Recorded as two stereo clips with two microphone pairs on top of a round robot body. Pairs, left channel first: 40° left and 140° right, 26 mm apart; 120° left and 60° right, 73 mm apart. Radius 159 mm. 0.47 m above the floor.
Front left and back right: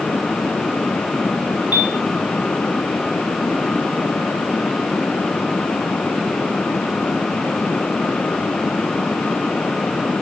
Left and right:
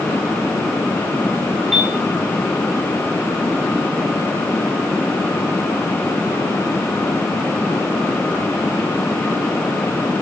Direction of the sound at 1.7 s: 145° right.